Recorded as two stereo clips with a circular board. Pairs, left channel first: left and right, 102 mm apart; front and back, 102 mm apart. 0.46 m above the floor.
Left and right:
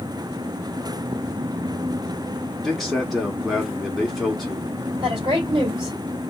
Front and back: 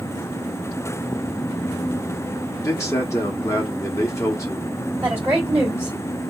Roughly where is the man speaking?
Ahead.